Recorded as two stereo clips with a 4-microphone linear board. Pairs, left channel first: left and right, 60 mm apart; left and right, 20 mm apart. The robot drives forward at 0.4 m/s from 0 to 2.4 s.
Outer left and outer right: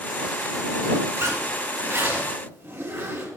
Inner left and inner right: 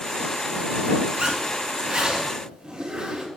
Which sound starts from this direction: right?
A zipper, at 1.2 s.